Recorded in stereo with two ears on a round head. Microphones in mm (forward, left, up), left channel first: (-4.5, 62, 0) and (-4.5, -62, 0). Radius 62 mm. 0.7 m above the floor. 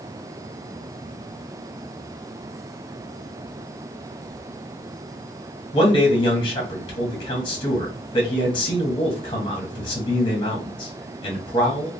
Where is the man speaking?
35° left (ahead or behind), 1.3 m.